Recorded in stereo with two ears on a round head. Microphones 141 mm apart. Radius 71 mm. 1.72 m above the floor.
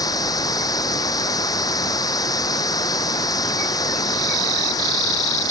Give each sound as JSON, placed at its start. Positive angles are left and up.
{"t": 0.0, "sound": "running water", "side_deg": 25}